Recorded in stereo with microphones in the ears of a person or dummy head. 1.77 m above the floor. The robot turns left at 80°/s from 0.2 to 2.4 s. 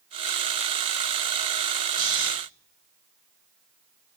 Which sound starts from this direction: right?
Snoring, at 2.0 s.